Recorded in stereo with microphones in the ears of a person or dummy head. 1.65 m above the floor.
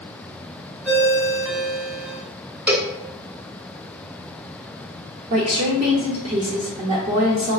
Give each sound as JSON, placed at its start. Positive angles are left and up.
{"t": 0.8, "sound": "a ringtone", "side_deg": -5, "distance_m": 1.0}
{"t": 2.7, "sound": "a cowbell", "side_deg": -10, "distance_m": 0.6}
{"t": 5.3, "sound": "a woman speaking", "side_deg": -40, "distance_m": 0.9}